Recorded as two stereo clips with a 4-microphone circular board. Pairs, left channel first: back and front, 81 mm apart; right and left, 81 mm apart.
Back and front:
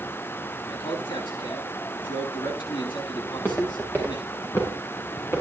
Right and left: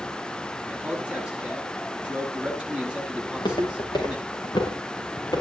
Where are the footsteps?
115° right, 6 m; by 5.4 s 125° right, 7 m.